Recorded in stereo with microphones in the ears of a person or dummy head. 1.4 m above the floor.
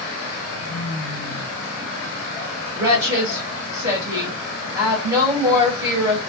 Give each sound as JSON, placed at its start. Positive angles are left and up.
{"t": 2.8, "sound": "a woman speaking", "side_deg": -20, "distance_m": 1.0}